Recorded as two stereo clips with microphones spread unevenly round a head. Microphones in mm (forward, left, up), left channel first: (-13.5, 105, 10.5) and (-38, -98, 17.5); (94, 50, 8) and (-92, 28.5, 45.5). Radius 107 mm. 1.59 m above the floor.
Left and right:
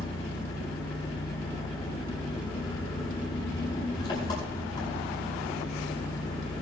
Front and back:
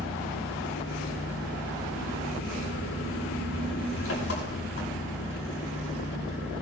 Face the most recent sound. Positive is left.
turn(degrees=10)